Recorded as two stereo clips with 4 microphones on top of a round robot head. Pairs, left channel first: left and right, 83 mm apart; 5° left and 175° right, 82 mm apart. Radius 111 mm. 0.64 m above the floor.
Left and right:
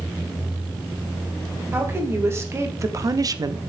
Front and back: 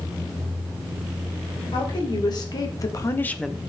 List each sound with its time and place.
1.7 s a woman speaking: 30° right, 3 m; by 3.6 s 110° right, 0.7 m